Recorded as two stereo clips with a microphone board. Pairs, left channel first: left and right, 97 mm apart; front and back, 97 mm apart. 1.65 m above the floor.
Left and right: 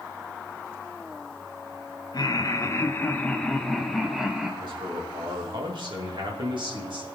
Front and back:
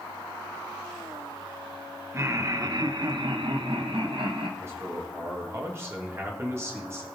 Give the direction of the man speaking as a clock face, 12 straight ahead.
4 o'clock.